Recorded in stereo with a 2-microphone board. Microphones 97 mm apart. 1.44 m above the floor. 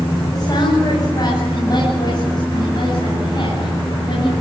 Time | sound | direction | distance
0.3 | a woman speaking | 40° left (ahead or behind) | 8.5 m